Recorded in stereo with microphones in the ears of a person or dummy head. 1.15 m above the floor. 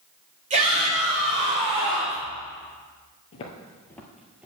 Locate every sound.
0.5 s a shout: 40° right (ahead or behind), 4 m; by 2.2 s 25° right (ahead or behind), 4.5 m
3.3 s footsteps: 35° left (ahead or behind), 1.4 m; by 4.5 s 5° right (ahead or behind), 1.5 m